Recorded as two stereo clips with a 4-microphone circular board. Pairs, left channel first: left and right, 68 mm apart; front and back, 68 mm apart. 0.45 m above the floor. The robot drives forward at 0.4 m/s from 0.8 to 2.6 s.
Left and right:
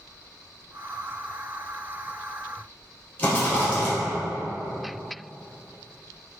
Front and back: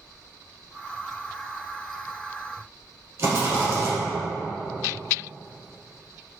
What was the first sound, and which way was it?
A rattle, 150° left.